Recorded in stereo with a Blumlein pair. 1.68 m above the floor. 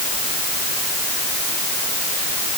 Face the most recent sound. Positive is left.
No sound to turn to.